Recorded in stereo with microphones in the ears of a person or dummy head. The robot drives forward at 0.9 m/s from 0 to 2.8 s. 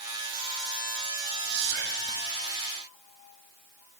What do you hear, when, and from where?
1.5 s whispering: 65° right (ahead or behind), 2.5 m; by 2.2 s 80° right, 2 m